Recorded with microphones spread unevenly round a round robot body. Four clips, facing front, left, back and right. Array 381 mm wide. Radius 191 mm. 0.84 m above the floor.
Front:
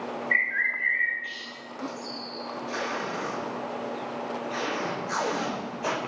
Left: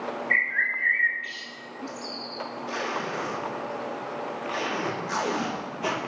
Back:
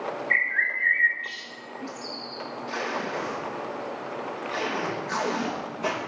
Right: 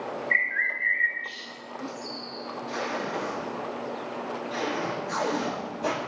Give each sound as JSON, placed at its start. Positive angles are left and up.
{"t": 0.3, "sound": "a bird", "azimuth_deg": 145, "distance_m": 2.5}
{"t": 2.7, "sound": "tape being pulled", "azimuth_deg": 125, "distance_m": 4.0}